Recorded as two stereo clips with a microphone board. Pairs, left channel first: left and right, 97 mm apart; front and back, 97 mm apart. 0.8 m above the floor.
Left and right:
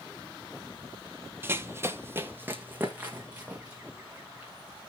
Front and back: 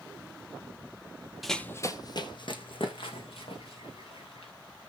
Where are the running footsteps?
95° right, 0.8 m; by 4.5 s 15° right, 4.5 m.